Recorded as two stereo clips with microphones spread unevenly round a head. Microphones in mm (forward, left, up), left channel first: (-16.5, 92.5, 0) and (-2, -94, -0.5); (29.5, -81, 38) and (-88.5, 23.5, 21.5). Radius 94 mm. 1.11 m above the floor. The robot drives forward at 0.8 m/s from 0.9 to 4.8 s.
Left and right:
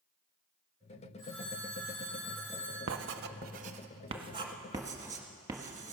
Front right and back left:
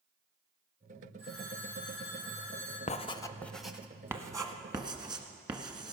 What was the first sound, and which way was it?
A phone ringing, 75° left.